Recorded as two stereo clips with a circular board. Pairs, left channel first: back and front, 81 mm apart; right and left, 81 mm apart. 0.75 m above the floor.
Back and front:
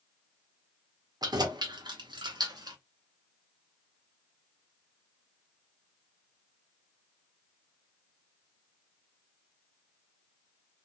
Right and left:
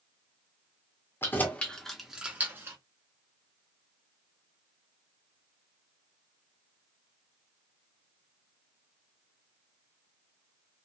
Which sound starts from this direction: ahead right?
Keys jangling, at 1.2 s.